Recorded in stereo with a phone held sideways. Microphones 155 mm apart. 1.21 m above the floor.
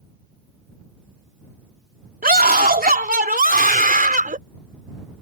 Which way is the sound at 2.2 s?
80° right.